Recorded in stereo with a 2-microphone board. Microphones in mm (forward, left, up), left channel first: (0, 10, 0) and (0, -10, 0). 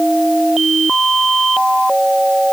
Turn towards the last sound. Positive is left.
No sound to turn to.